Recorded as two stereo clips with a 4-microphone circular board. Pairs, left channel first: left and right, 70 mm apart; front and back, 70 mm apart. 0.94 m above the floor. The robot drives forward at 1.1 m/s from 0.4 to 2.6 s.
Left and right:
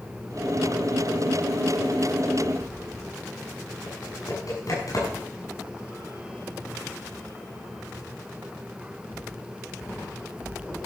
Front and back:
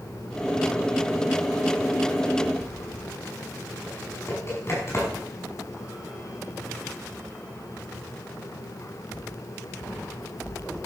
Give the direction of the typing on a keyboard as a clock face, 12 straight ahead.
10 o'clock.